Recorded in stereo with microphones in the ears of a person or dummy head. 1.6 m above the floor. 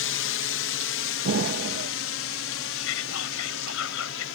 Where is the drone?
60° left (ahead or behind); by 4.3 s 65° left (ahead or behind).